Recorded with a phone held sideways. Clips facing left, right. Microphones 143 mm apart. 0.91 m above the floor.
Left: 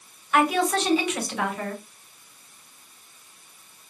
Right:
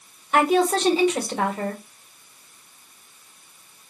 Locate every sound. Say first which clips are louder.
0.3 s a woman speaking: right 3 dB; 35° right (ahead or behind), 1.4 m